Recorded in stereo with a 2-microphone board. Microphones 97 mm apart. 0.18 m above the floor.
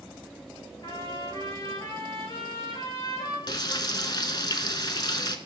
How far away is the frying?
About 0.5 m.